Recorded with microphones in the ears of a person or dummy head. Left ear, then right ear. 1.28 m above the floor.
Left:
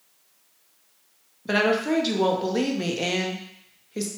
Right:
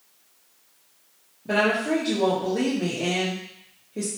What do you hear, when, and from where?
1.4 s a woman speaking: 50° left (ahead or behind), 0.6 m